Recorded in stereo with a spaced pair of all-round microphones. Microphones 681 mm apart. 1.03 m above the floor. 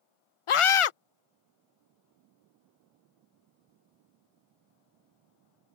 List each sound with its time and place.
0.5 s a scream: 50° left (ahead or behind)